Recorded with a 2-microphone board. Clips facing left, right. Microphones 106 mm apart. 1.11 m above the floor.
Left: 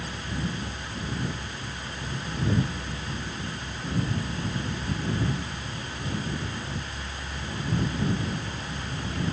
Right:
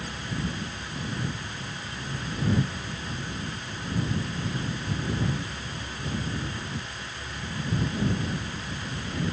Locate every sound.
Only background noise.